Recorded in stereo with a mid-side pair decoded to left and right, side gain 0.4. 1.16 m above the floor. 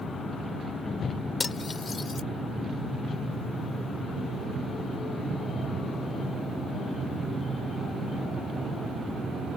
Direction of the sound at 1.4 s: 40° left.